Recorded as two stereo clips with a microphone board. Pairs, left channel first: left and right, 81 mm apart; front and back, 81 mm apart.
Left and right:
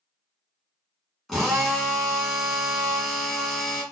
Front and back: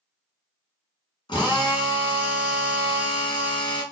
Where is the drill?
Straight ahead, 1.1 m.